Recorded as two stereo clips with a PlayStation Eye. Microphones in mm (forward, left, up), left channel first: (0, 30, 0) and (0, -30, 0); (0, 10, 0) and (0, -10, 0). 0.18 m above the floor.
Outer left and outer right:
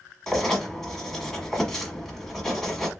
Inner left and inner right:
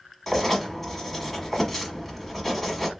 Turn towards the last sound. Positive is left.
turn(degrees=5)  # may be behind; listen again after turning